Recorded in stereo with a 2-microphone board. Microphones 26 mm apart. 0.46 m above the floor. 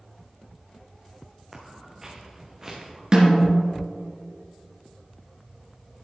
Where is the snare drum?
30° right (ahead or behind), 3 m.